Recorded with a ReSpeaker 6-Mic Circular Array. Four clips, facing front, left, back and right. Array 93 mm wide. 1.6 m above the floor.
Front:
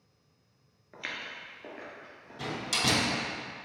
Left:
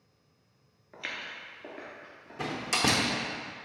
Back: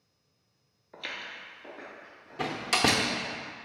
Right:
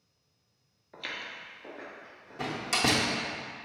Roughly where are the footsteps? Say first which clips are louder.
Even, even; ahead left.